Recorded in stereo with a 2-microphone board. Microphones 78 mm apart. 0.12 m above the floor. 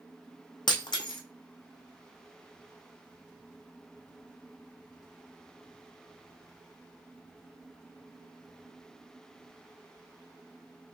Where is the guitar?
No guitar in this recording.